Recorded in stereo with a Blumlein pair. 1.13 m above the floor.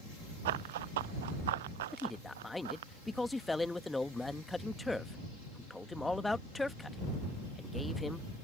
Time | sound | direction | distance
0.5 | running footsteps | 55° right | ?
1.9 | a man speaking | 5° left | ?